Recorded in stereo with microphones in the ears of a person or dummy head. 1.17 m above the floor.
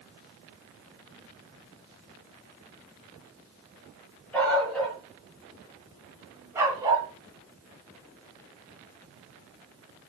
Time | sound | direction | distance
4.3 | a dog barking | 5° left (ahead or behind) | 4 m